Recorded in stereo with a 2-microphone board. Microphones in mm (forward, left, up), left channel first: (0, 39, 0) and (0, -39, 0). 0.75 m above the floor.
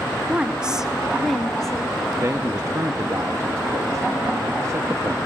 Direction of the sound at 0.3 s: 15° right (ahead or behind).